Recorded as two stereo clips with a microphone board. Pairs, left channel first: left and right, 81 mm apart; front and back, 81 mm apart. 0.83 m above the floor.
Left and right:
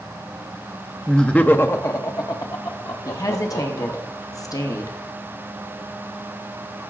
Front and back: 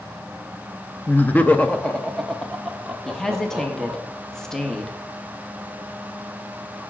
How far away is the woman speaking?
About 1.0 m.